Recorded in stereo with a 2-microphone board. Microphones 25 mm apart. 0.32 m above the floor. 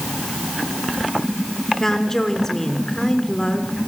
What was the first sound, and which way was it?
A woman speaking, 20° left (ahead or behind).